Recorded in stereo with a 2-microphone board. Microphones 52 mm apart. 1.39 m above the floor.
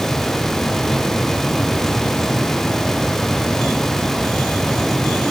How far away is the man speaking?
I don't hear a man speaking.